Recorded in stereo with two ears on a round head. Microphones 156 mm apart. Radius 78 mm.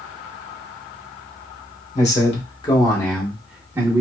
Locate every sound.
1.9 s a man speaking: 40° left (ahead or behind), 1.2 m; by 4.0 s 20° right (ahead or behind), 0.9 m